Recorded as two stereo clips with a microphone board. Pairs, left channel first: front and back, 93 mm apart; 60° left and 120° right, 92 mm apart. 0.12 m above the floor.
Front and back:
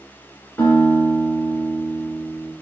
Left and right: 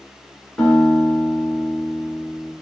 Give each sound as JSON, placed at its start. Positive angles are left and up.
{"t": 0.6, "sound": "a guitar", "azimuth_deg": -5, "distance_m": 1.4}